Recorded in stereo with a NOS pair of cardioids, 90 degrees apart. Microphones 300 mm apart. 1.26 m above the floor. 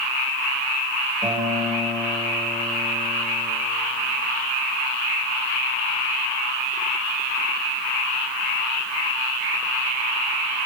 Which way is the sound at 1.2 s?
10° right.